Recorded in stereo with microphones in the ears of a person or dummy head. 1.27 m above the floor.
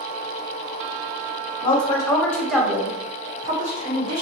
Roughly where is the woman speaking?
Left.